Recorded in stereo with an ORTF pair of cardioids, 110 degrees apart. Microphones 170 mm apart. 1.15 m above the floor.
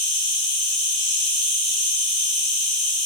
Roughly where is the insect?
Ahead left.